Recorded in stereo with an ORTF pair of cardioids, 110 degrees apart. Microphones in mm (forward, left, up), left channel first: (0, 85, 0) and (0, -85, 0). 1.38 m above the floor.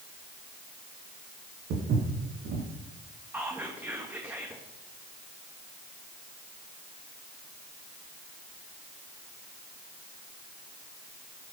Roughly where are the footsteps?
Right.